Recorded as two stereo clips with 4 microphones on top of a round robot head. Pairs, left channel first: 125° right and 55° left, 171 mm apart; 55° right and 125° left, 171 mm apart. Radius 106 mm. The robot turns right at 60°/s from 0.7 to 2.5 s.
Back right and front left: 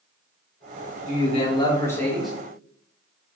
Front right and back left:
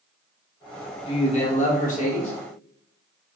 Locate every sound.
1.1 s a man speaking: 100° right, 0.9 m; by 2.3 s 25° right, 0.9 m